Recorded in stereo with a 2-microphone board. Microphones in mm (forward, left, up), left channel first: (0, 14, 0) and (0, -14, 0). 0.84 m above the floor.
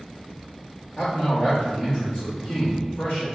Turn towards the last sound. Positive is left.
turn(degrees=45)  # may be behind; listen again after turning